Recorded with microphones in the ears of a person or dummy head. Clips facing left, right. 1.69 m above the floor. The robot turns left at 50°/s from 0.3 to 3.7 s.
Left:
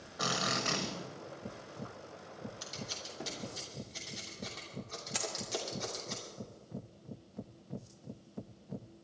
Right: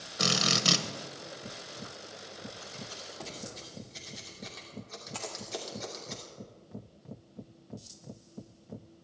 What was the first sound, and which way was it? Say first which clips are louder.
A drill: right 4 dB; 35° right (ahead or behind).